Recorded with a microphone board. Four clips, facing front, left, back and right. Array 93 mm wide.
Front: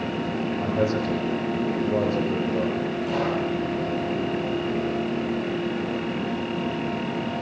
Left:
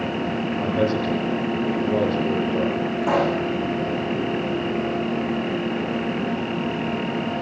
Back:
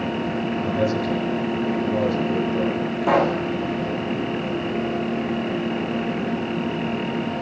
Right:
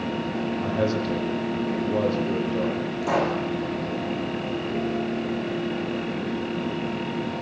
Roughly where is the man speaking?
Ahead left.